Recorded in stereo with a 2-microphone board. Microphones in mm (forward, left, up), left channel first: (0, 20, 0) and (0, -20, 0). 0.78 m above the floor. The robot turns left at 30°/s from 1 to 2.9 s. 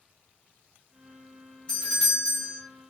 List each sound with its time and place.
1.7 s a doorbell: 25° left (ahead or behind), 1.1 m